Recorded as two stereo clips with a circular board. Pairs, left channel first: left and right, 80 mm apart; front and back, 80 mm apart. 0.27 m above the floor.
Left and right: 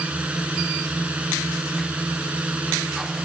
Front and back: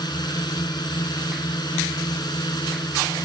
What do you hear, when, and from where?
0.0 s a drone: 15° right